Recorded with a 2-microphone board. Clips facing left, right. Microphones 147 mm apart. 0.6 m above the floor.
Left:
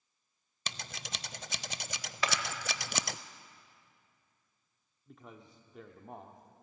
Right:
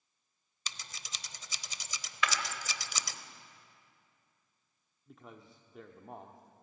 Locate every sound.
0.7 s scissors: 65° left (ahead or behind), 0.6 m
2.2 s a clap: 35° left (ahead or behind), 2 m
5.1 s a man speaking: centre (ahead or behind), 1.1 m